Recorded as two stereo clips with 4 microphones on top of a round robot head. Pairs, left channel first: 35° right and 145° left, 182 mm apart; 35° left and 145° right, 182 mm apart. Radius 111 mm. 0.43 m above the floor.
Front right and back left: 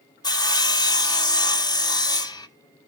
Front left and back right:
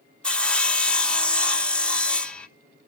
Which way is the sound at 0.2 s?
40° right.